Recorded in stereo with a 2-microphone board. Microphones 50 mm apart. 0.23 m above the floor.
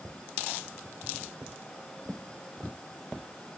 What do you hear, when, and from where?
Only background noise.